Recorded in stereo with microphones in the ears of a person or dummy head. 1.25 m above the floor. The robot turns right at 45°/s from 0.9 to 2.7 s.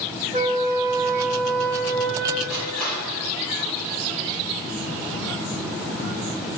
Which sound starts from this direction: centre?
Crushing, at 2.5 s.